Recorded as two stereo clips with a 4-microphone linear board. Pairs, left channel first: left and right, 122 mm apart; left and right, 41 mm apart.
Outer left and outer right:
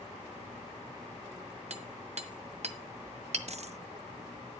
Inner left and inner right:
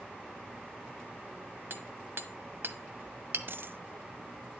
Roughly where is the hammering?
Right.